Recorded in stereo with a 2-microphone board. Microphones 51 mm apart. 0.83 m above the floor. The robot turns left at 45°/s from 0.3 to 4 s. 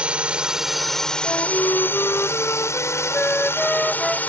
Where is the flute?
120° left; by 4.2 s 5° right.